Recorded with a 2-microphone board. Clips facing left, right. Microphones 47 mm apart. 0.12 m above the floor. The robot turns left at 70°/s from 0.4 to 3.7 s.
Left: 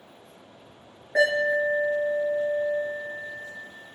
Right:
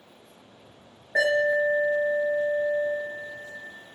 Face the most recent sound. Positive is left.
turn(degrees=175)